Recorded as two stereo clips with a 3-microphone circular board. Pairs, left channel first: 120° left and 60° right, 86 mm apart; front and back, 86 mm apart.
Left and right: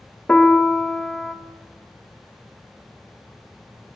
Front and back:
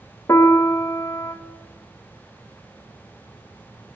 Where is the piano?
45° left, 0.6 m.